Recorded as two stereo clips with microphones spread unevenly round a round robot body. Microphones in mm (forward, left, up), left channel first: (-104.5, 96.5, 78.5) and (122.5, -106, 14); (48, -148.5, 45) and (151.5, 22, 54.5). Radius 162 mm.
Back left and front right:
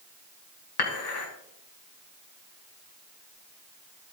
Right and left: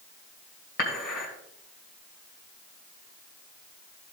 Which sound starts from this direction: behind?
Dishes clattering, at 0.8 s.